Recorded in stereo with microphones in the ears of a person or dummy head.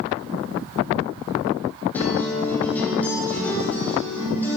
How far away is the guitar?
About 3.5 m.